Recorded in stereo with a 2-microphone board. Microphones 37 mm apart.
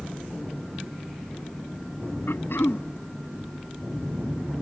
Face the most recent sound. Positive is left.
turn(degrees=80)